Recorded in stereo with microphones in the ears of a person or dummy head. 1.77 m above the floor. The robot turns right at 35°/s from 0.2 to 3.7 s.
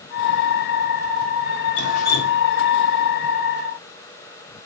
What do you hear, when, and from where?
1.8 s dripping: 50° left (ahead or behind), 1.2 m; by 2.5 s 30° left (ahead or behind), 1.2 m